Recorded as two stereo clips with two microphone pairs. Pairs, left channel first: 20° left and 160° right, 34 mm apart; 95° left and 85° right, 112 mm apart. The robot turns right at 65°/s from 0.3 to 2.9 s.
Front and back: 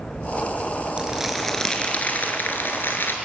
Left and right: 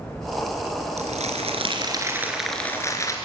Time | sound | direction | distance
1.0 | crumpling | 95° right | 3 m